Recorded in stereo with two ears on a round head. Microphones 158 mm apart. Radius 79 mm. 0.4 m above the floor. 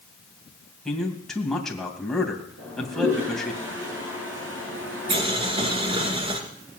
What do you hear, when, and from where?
0.8 s a man speaking: centre (ahead or behind), 2.5 m
2.6 s a toilet flushing: 80° right, 6.5 m
5.1 s boiling: 30° right (ahead or behind), 1.8 m